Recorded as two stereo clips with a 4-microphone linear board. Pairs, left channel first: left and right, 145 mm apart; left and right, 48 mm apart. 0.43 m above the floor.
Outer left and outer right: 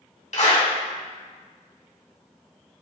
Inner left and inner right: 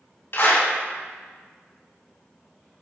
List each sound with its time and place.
0.3 s a clap: 55° left (ahead or behind), 3 m